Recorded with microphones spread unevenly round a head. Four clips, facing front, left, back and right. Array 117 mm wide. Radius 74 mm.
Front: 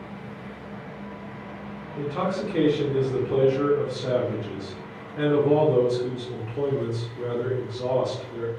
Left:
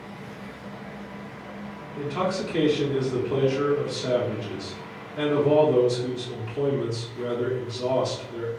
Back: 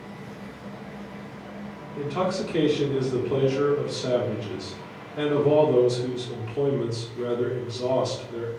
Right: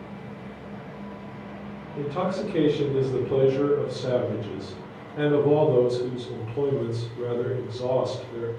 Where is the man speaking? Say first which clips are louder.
Even, back 1 dB; 135° right, 0.8 m.